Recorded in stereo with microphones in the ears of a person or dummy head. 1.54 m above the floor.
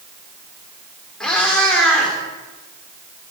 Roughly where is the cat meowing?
Centre.